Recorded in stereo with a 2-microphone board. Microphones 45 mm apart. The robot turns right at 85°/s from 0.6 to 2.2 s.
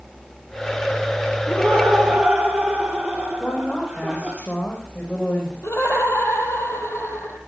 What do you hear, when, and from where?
1.5 s laughter: 130° left, 3.5 m; by 4.4 s 165° right, 3.5 m
3.4 s a woman speaking: 25° left (ahead or behind), 5.5 m
5.6 s laughter: 65° left (ahead or behind), 3.5 m